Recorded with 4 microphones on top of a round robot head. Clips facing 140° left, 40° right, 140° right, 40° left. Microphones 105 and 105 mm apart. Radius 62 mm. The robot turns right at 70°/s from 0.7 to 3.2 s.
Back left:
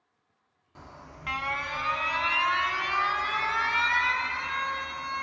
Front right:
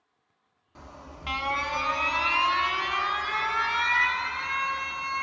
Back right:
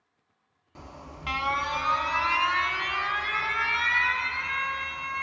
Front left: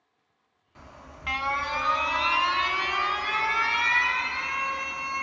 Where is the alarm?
130° right, 0.7 m; by 5.2 s 45° left, 0.7 m.